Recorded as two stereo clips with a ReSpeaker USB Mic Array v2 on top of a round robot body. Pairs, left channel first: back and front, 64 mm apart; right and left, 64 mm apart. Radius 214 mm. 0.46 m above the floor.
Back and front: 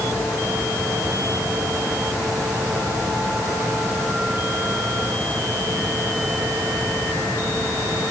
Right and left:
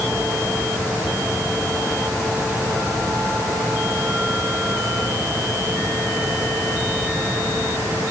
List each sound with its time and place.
Only background noise.